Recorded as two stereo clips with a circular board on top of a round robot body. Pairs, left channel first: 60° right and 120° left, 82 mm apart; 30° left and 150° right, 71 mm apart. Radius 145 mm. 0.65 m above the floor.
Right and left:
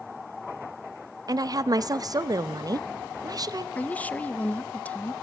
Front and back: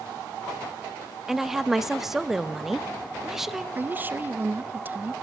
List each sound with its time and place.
1.3 s a woman speaking: 125° left, 0.8 m
3.8 s a woman speaking: 115° right, 0.7 m